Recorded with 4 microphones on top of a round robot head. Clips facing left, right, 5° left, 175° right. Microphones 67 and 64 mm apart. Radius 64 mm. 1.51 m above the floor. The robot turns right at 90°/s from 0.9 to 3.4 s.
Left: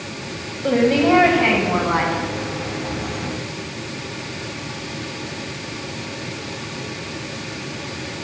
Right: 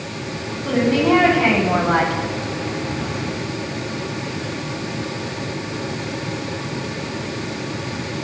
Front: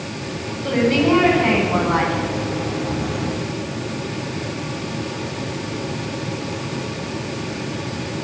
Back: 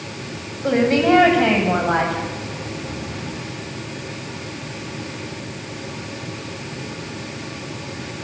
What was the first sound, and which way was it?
A woman speaking, 130° left.